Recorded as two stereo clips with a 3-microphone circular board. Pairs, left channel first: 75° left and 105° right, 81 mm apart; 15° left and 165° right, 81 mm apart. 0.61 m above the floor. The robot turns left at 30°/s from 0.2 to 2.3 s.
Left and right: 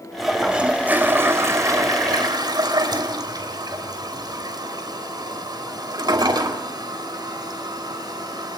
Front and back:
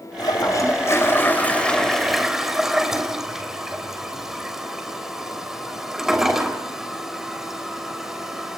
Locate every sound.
0.2 s a toilet flushing: 20° right, 3 m; by 8.6 s 80° right, 3 m